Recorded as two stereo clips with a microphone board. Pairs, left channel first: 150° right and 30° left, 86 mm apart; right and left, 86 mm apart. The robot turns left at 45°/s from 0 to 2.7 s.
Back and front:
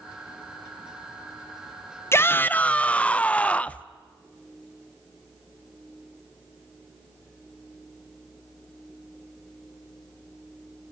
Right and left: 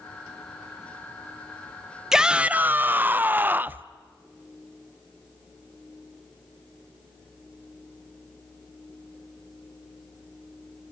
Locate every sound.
2.1 s a shout: 170° left, 0.5 m; by 3.8 s 145° left, 0.5 m